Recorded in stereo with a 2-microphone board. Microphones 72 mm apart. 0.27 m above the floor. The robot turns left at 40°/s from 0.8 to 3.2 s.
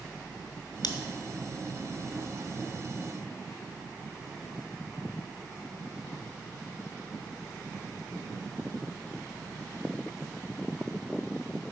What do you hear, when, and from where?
0.8 s scissors: 80° left, 0.8 m; by 0.9 s 85° left, 0.8 m